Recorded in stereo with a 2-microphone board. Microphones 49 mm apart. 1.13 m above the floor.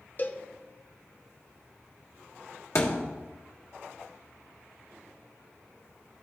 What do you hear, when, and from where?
0.2 s a cowbell: 35° left (ahead or behind), 0.5 m
2.8 s a thud: 75° left (ahead or behind), 1.5 m